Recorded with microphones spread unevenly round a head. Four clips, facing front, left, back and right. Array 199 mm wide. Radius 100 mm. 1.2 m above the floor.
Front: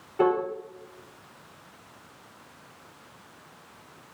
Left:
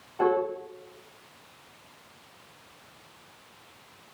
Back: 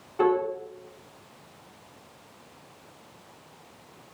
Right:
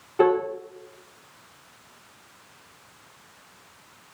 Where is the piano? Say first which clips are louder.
Right 4 dB, even; 90° right, 3 m.